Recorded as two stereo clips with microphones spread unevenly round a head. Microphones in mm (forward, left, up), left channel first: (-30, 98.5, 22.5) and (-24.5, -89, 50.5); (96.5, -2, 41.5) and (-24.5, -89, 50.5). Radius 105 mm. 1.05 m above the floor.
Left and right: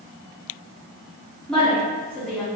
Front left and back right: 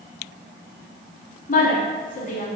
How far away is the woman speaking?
About 1.7 m.